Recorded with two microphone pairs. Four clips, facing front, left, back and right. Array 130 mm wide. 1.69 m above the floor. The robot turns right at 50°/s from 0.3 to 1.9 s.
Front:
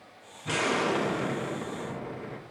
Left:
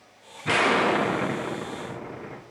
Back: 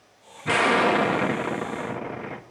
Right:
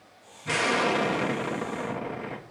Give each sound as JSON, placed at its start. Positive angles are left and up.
{"t": 0.5, "sound": "an explosion", "azimuth_deg": 130, "distance_m": 0.8}